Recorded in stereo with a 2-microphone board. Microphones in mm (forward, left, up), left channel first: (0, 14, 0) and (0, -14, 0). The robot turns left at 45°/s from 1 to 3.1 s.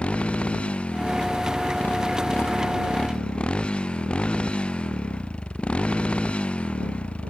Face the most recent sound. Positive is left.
turn(degrees=50)  # may be behind; listen again after turning